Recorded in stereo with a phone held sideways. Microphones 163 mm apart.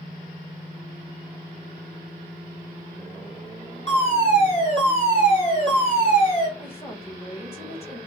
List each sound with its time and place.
3.9 s a fire alarm: 40° left (ahead or behind), 6.5 m
6.6 s a woman speaking: 40° left (ahead or behind), 6 m